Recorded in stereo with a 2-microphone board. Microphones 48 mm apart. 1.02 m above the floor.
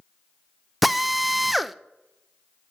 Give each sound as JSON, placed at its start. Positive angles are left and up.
{"t": 0.8, "sound": "a drill", "side_deg": 0, "distance_m": 0.5}